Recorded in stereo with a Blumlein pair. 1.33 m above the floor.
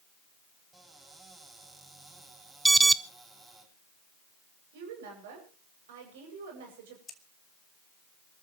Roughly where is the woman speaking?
Ahead right.